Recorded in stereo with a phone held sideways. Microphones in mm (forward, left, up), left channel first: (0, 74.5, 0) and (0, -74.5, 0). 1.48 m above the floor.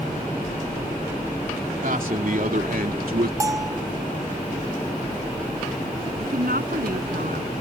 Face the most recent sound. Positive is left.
turn(degrees=-85)